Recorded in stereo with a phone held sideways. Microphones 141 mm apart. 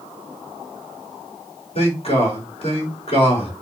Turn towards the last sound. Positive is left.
turn(degrees=45)  # may be behind; listen again after turning